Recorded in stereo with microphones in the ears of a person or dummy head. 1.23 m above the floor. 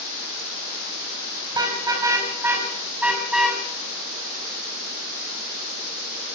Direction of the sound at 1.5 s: 20° right (ahead or behind).